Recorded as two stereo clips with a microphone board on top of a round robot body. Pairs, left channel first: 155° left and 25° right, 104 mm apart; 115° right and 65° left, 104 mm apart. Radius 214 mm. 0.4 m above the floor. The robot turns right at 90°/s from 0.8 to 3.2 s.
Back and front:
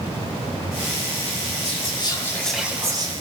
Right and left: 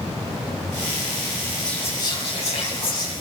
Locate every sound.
1.6 s whispering: 165° left, 4.5 m; by 3.1 s 60° right, 4.5 m